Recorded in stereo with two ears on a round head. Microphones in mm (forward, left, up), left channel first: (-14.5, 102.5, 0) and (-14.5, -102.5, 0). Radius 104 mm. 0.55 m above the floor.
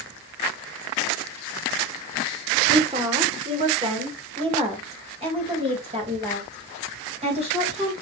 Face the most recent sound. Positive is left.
turn(degrees=-30)  # may be behind; listen again after turning